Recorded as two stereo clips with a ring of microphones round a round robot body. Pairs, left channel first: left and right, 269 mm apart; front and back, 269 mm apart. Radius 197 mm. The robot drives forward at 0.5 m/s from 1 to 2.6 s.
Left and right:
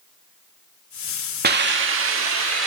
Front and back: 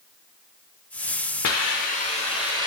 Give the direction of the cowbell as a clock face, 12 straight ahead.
No cowbell in this recording.